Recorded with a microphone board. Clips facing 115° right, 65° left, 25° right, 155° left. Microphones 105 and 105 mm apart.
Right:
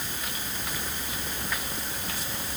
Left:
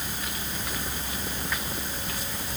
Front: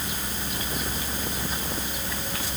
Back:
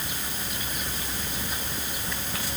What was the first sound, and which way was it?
Only background noise.